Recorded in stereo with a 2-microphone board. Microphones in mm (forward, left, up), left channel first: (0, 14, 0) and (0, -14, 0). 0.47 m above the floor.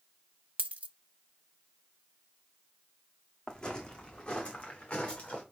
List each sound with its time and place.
0.6 s a dropped coin: 85° right, 1.0 m
3.5 s footsteps: 25° left (ahead or behind), 2 m; by 5.4 s 40° left (ahead or behind), 3.5 m